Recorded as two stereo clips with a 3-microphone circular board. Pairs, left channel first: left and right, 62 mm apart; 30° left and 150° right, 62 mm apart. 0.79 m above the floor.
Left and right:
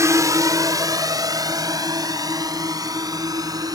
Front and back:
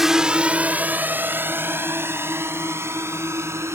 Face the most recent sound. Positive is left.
turn(degrees=-105)